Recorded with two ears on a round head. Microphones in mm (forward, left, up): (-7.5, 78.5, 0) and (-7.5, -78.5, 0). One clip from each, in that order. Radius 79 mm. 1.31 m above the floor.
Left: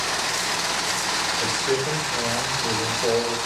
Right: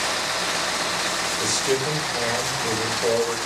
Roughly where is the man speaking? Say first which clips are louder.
Even; right.